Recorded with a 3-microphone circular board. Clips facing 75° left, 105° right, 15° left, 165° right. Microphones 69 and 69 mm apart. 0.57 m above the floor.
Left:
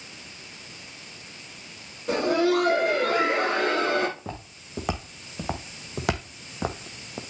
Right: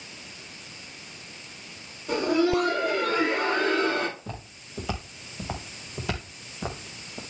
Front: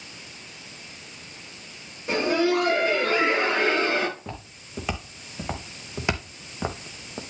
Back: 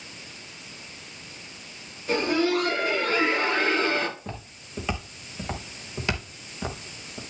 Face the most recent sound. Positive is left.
turn(degrees=65)